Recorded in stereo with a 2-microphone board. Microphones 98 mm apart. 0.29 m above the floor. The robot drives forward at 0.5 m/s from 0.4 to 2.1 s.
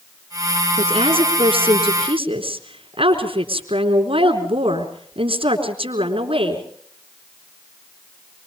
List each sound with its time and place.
0.8 s a woman speaking: 70° right (ahead or behind), 4 m